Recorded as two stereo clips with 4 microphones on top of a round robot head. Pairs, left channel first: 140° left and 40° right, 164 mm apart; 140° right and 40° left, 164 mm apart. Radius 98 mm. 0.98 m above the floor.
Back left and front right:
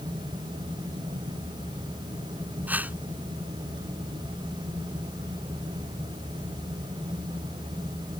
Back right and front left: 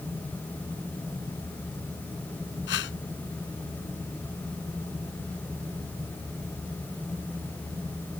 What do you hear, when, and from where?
2.7 s a whoosh: 120° right